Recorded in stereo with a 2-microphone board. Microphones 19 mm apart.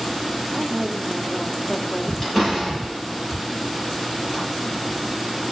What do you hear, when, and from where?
0.5 s a woman speaking: 5° left (ahead or behind), 1.6 m
2.2 s a door slam: 25° left (ahead or behind), 9 m